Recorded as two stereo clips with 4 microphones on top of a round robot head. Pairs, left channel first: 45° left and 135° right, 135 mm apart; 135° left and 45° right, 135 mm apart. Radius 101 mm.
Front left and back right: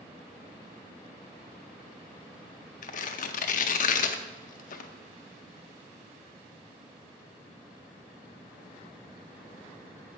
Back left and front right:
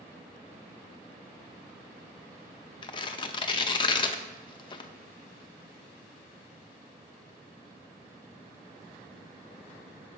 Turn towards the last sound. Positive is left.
turn(degrees=75)